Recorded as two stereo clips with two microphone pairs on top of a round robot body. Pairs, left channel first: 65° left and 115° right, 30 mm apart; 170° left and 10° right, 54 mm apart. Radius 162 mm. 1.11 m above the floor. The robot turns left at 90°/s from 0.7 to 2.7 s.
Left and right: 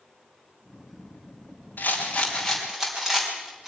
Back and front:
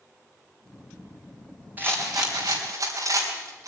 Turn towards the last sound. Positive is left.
turn(degrees=-35)